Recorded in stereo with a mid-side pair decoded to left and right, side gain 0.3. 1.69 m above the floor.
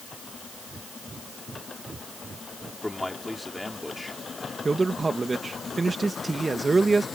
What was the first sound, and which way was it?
Breathing, 40° right.